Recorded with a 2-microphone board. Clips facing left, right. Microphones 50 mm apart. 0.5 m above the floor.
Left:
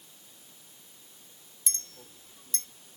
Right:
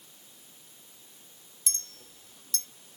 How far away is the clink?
About 0.6 m.